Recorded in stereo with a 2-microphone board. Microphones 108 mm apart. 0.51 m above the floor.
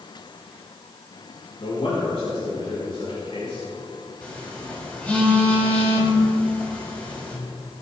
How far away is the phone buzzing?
About 3.5 m.